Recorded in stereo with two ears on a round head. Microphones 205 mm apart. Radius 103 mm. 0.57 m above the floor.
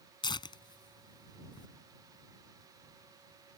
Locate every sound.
0.2 s tearing paper: 20° left (ahead or behind)